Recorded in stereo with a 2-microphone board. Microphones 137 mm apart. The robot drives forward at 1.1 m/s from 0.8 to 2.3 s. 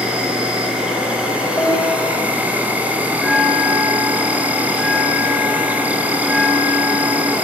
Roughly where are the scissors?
I don't hear scissors.